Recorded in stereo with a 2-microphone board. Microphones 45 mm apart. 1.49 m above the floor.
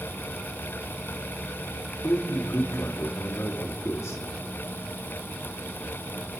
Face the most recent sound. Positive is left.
turn(degrees=75)  # may be behind; listen again after turning